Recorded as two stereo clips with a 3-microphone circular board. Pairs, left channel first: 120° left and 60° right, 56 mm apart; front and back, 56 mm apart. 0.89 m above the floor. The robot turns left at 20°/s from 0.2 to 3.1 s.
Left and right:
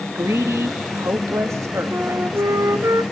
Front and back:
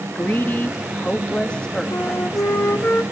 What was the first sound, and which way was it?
A woman speaking, 40° right.